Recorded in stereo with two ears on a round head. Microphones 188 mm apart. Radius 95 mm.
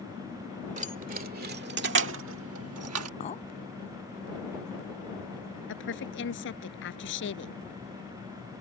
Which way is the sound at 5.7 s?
65° left (ahead or behind).